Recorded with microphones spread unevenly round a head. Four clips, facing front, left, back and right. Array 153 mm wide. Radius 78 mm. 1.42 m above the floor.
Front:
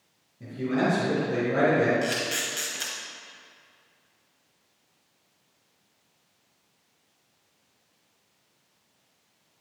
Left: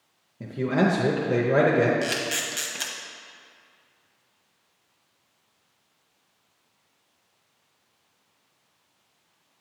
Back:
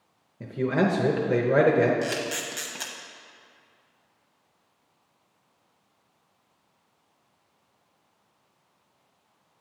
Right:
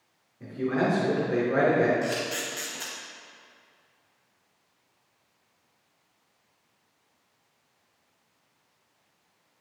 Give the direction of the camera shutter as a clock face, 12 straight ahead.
7 o'clock.